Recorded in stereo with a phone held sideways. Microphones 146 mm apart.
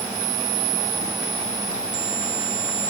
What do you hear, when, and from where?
Only background noise.